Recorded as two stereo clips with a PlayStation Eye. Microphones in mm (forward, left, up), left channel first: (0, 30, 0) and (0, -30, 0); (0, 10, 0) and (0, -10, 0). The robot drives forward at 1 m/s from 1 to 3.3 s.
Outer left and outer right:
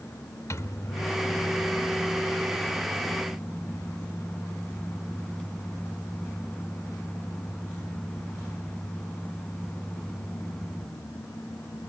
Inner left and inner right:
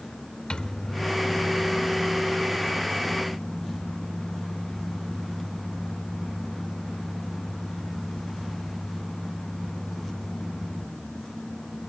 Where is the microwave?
55° left (ahead or behind), 0.8 m; by 10.8 s 15° left (ahead or behind), 2.5 m.